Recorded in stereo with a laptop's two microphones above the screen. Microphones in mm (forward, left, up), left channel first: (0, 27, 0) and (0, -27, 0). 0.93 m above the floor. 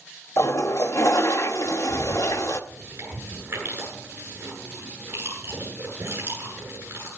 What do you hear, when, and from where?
0.4 s a toilet flushing: 65° left (ahead or behind), 0.7 m
2.7 s chewing: 45° right (ahead or behind), 8.5 m